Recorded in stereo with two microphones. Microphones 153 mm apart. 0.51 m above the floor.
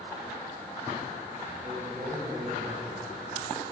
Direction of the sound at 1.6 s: 60° right (ahead or behind).